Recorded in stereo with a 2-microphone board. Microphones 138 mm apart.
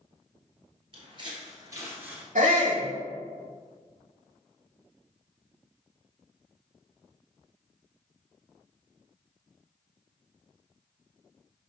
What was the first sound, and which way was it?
Footsteps, 40° right (ahead or behind).